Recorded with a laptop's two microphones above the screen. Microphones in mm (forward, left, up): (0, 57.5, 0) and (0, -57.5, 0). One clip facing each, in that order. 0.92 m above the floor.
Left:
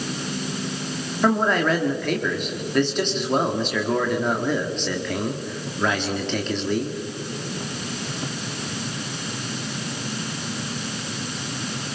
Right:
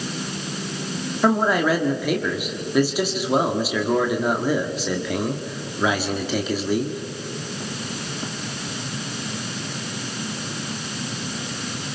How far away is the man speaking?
About 1.9 m.